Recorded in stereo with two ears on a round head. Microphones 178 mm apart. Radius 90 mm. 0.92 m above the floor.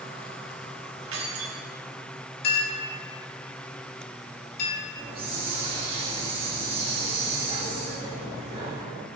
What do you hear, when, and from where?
1.1 s keys jangling: 70° right (ahead or behind), 1.5 m
2.4 s a clink: 50° left (ahead or behind), 1.9 m
5.0 s a hiss: 30° right (ahead or behind), 1.9 m